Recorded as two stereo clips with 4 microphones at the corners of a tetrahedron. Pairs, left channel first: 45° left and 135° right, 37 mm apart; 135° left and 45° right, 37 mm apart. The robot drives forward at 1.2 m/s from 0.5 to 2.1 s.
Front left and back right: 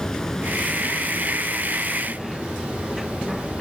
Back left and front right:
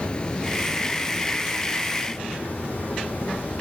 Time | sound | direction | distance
0.0 | running water | 105° left | 0.7 m